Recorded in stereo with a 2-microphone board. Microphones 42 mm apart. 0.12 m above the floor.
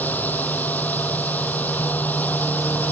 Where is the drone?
45° left (ahead or behind).